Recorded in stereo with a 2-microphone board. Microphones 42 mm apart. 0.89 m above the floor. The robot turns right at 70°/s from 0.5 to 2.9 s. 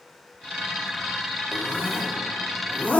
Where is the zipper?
50° left (ahead or behind), 1.4 m; by 3.0 s 35° left (ahead or behind), 1.4 m.